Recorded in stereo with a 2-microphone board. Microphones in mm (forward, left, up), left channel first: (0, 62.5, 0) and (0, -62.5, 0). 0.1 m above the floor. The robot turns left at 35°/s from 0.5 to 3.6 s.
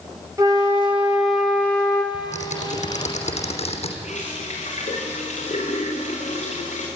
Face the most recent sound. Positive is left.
turn(degrees=65)  # may be behind; listen again after turning